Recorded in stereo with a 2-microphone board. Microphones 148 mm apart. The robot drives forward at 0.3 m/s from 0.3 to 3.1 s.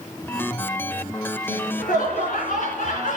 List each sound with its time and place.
1.5 s laughter: 65° left (ahead or behind), 2.5 m; by 3.2 s 60° left (ahead or behind), 3 m